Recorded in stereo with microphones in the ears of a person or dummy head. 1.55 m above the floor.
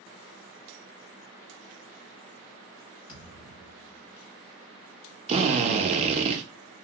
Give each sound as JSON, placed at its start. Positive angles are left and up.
{"t": 3.1, "sound": "a thud", "side_deg": -5, "distance_m": 2.0}
{"t": 5.3, "sound": "a drill", "side_deg": -35, "distance_m": 0.8}